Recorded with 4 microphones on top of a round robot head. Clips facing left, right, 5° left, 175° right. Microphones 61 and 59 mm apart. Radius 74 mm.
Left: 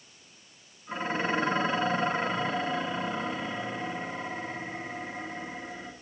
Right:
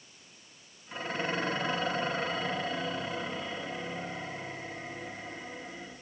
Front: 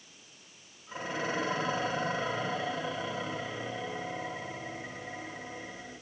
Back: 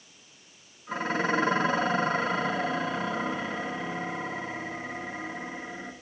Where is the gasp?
I don't hear a gasp.